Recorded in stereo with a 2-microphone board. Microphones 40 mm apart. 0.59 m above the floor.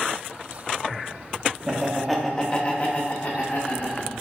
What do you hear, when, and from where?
1.7 s laughter: 20° right (ahead or behind), 0.6 m; by 4.1 s 55° left (ahead or behind), 1.4 m